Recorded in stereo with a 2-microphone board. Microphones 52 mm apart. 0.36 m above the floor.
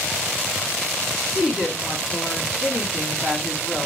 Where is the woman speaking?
5° right (ahead or behind), 3 m.